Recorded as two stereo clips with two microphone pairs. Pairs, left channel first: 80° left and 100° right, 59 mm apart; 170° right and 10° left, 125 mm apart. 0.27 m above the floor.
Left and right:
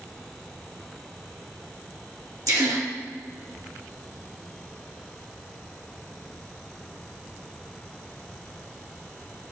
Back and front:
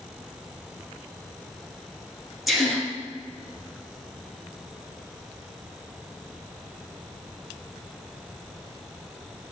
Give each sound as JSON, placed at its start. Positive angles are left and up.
{"t": 2.5, "sound": "a gasp", "azimuth_deg": -75, "distance_m": 1.8}